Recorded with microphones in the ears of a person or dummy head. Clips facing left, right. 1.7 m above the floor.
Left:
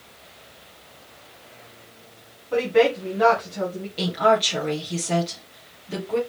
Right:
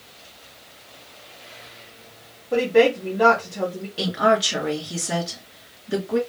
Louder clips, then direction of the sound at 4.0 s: Even; 20° right (ahead or behind).